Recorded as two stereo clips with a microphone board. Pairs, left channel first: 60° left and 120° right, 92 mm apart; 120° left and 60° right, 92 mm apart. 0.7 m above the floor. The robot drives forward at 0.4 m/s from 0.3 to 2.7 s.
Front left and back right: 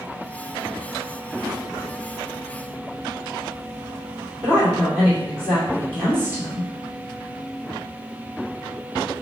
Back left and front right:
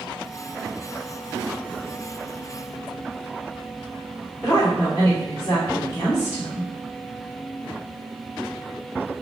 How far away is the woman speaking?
About 1.6 m.